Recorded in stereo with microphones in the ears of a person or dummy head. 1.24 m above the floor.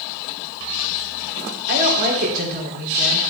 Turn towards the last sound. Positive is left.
turn(degrees=-50)  # may be behind; listen again after turning